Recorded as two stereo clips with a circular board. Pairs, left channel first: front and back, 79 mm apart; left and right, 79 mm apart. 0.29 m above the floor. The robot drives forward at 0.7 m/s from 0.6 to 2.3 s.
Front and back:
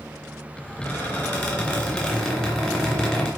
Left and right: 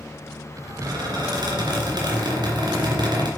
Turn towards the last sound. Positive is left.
turn(degrees=-80)